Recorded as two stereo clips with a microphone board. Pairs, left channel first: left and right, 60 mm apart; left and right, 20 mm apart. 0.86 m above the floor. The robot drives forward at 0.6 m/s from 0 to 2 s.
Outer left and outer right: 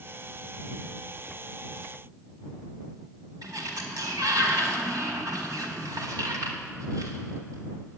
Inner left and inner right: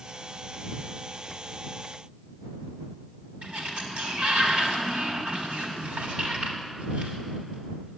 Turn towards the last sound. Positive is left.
turn(degrees=-80)